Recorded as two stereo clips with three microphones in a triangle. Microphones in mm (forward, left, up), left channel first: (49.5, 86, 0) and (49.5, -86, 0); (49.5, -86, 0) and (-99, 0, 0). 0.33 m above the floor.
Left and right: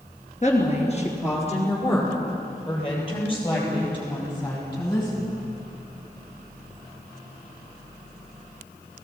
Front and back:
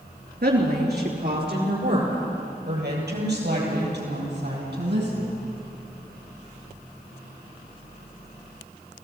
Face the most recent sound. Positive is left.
turn(degrees=155)